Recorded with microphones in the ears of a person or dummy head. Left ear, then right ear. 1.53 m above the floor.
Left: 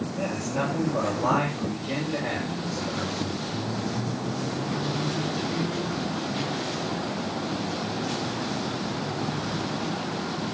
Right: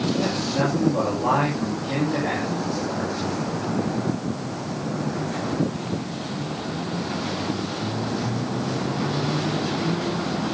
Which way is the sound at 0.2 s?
20° left (ahead or behind).